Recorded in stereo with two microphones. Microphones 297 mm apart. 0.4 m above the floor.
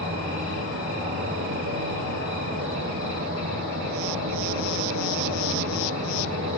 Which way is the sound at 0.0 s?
70° right (ahead or behind).